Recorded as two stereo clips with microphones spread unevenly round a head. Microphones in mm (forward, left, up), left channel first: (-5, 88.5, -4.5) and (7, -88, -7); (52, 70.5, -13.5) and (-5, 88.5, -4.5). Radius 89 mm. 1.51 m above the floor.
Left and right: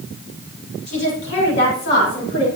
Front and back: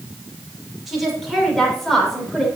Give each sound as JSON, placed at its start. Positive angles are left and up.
{"t": 0.9, "sound": "a woman speaking", "azimuth_deg": 75, "distance_m": 6.5}